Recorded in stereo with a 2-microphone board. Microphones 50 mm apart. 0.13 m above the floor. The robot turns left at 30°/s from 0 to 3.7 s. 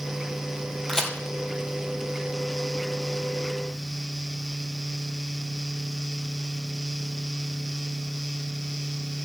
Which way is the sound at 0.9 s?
5° left (ahead or behind).